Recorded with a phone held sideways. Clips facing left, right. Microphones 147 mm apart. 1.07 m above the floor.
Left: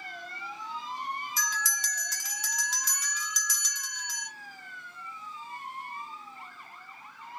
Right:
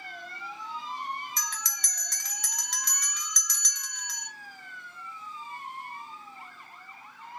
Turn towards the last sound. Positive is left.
turn(degrees=5)  # may be behind; listen again after turning